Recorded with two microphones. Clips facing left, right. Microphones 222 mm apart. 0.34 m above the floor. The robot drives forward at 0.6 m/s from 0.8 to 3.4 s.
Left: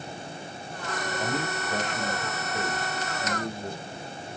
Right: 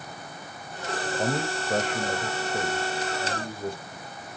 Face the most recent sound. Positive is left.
turn(degrees=-30)  # may be behind; listen again after turning